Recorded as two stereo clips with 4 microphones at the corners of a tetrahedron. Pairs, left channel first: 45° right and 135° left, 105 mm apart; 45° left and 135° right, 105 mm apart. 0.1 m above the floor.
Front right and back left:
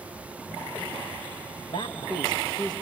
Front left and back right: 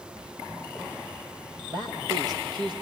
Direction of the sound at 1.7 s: 85° right.